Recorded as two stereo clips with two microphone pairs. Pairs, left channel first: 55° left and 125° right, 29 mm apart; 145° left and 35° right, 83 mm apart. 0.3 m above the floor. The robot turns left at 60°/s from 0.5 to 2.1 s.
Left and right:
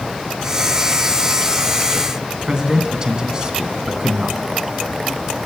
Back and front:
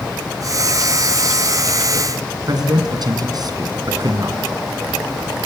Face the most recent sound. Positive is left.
turn(degrees=-60)